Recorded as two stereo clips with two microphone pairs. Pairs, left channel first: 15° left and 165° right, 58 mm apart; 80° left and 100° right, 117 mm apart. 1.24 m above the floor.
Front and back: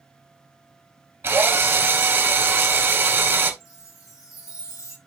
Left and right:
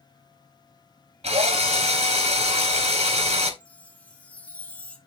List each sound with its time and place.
1.2 s a drill: 120° right, 2 m
3.6 s a chime: straight ahead, 1.4 m